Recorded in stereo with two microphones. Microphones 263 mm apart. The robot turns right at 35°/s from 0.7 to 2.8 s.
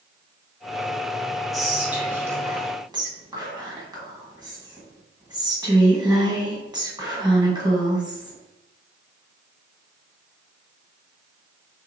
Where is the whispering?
Centre (ahead or behind), 1.2 m; by 8.4 s 15° right (ahead or behind), 1.2 m.